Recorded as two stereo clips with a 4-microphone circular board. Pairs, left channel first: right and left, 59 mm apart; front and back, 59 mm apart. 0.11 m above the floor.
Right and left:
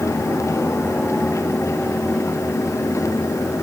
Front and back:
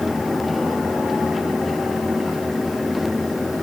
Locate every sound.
Only background noise.